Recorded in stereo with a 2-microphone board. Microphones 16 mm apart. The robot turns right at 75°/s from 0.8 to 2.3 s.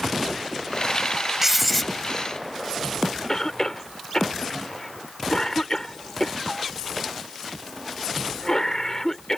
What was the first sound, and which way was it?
Writing, 20° right.